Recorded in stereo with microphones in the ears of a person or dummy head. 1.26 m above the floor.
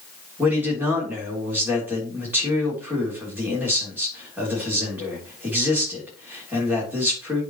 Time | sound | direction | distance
0.4 | a man speaking | 10° right (ahead or behind) | 3.5 m